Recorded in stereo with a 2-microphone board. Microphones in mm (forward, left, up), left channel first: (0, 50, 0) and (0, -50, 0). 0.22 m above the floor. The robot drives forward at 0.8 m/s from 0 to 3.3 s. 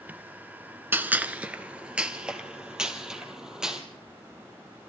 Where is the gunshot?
20° right (ahead or behind), 1.0 m; by 3.8 s 5° right (ahead or behind), 3 m.